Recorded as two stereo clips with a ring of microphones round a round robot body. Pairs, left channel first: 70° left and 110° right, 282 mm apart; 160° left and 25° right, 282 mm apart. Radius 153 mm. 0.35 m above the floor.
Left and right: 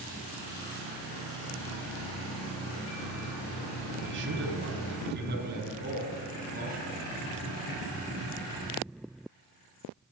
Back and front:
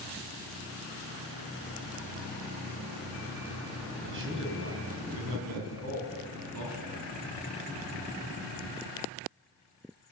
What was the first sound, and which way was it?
A man speaking, 70° right.